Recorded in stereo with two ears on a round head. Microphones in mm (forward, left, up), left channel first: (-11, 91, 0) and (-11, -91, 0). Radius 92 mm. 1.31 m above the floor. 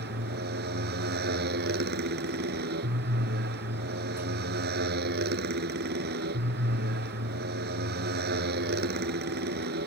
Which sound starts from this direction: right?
A motorcycle, at 0.0 s.